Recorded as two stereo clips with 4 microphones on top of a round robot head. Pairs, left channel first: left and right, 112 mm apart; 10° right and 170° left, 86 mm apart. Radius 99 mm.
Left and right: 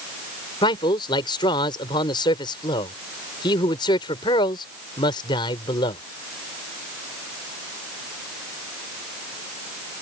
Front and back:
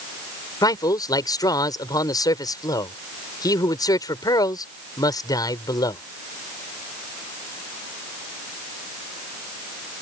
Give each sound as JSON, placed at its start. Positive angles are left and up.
{"t": 0.6, "sound": "a man speaking", "azimuth_deg": 30}